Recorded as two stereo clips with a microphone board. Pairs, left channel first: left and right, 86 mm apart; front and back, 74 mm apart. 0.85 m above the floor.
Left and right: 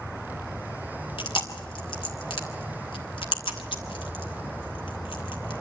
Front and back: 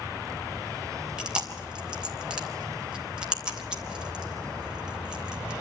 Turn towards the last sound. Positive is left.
turn(degrees=105)